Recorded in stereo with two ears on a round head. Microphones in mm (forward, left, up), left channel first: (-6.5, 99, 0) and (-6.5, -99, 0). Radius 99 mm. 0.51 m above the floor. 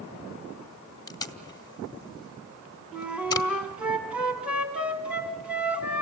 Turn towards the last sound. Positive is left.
turn(degrees=-5)  # may be behind; listen again after turning